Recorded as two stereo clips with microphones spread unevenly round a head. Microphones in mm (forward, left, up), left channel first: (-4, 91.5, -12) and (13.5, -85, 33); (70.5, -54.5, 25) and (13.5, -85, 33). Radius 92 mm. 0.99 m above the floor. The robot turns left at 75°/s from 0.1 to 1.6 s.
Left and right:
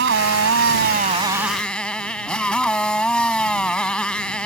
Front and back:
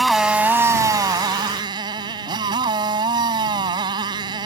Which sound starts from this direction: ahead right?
A motorcycle, at 0.0 s.